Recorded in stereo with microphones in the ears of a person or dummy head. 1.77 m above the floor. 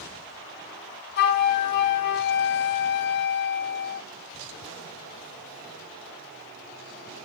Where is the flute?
55° left (ahead or behind), 0.9 m.